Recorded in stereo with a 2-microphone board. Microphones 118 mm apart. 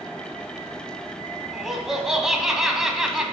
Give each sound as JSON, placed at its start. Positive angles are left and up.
{"t": 1.5, "sound": "laughter", "side_deg": -5, "distance_m": 1.3}